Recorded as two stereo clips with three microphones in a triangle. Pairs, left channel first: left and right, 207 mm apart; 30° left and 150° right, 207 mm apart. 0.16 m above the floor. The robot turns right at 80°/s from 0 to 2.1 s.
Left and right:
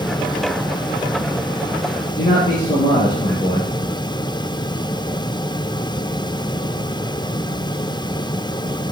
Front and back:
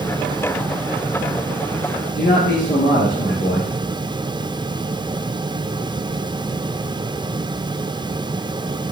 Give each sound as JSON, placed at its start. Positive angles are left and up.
{"t": 2.1, "sound": "a man speaking", "azimuth_deg": 30, "distance_m": 3.0}